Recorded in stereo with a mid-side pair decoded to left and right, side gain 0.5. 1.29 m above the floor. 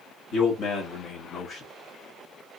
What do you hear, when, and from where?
0.3 s a man speaking: 70° left, 2.0 m; by 1.6 s 65° left, 1.3 m